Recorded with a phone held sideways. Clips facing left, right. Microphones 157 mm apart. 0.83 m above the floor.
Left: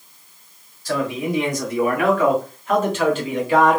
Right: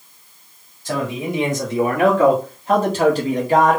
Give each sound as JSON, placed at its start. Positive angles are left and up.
{"t": 0.8, "sound": "a man speaking", "side_deg": -20, "distance_m": 2.0}